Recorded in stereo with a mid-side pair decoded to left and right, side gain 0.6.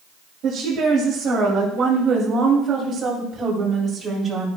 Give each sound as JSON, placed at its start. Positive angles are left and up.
{"t": 0.4, "sound": "a woman speaking", "azimuth_deg": -60, "distance_m": 3.0}